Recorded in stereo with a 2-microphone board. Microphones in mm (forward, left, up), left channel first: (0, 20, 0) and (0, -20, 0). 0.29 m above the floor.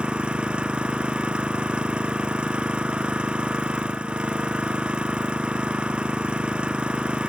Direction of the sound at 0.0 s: 25° right (ahead or behind).